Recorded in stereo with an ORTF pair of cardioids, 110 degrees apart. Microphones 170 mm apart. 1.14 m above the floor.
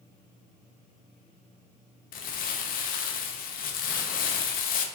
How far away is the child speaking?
I don't hear a child speaking.